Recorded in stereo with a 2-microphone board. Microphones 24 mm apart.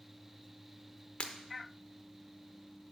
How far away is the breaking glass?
About 0.8 m.